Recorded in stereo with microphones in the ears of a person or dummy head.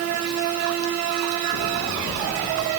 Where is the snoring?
No snoring in this recording.